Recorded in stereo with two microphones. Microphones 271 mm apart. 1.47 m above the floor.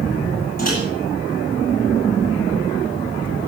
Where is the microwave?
30° left (ahead or behind), 7.5 m.